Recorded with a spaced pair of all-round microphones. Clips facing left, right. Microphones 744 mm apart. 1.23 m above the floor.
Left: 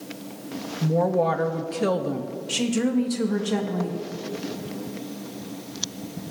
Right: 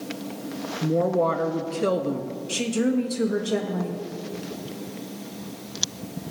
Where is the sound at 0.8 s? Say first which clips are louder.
Even; 30° left (ahead or behind), 0.7 m.